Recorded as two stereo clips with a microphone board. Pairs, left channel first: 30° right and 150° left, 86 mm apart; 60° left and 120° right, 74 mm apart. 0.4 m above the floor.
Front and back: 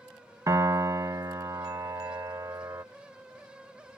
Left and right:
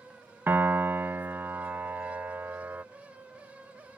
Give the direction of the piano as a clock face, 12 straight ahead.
6 o'clock.